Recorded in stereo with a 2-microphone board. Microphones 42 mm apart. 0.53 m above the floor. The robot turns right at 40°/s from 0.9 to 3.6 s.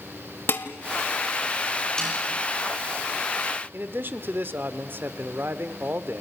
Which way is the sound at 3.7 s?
55° right (ahead or behind).